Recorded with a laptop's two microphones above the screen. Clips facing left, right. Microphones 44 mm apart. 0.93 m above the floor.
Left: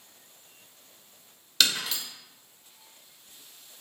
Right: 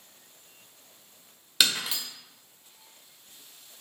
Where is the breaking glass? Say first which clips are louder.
Even; 10° right (ahead or behind), 0.8 m.